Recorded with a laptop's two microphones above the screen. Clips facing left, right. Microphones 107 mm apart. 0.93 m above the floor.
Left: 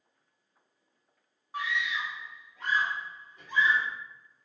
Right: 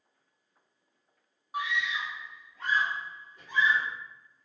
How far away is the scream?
About 0.6 m.